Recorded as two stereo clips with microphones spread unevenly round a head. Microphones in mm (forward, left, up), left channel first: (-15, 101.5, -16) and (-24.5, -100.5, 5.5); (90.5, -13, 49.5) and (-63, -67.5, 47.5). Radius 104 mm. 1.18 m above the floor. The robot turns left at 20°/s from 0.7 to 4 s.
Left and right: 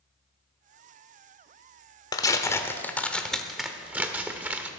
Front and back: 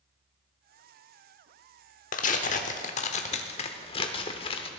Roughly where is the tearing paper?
Ahead.